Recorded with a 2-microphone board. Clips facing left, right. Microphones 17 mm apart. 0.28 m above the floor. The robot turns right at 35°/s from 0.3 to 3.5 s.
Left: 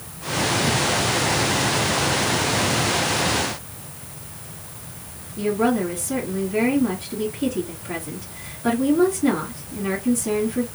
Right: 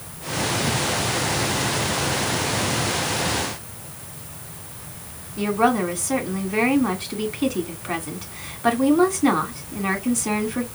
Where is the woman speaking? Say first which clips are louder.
Right 1 dB; 55° right (ahead or behind), 2 m.